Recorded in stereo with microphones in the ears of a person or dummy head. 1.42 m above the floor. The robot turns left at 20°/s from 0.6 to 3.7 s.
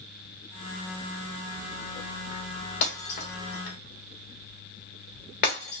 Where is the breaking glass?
60° left (ahead or behind), 1.3 m; by 5.8 s 55° left (ahead or behind), 1.3 m.